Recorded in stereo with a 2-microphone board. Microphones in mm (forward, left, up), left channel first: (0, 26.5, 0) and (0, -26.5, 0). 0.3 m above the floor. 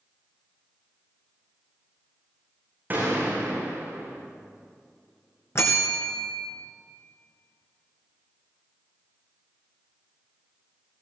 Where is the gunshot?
35° right (ahead or behind), 5.5 m.